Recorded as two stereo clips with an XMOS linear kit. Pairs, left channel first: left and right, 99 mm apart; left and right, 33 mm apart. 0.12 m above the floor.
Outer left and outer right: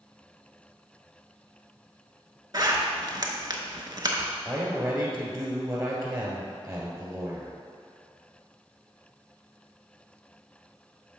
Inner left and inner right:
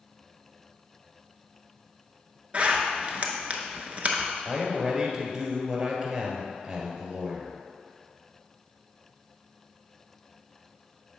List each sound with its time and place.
2.5 s a zipper: 40° right (ahead or behind), 0.7 m
4.5 s a man speaking: 30° right (ahead or behind), 1.6 m